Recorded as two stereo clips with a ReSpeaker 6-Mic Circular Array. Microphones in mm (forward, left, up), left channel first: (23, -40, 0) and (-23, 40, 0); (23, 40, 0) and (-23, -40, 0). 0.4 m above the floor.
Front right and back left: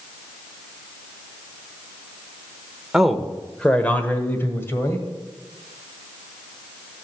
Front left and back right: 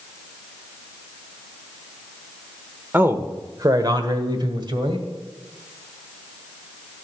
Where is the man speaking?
160° right, 1.0 m; by 5.1 s 115° right, 1.9 m.